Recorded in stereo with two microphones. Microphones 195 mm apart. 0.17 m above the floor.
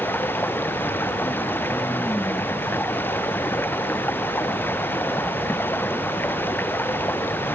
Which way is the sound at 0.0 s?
10° left (ahead or behind).